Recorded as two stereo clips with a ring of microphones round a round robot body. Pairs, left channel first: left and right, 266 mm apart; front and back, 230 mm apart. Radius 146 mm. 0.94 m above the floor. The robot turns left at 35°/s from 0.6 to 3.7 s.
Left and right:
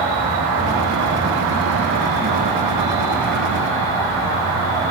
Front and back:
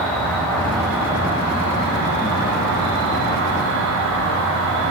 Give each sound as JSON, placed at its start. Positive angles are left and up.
{"t": 0.0, "sound": "an insect", "azimuth_deg": -85, "distance_m": 4.0}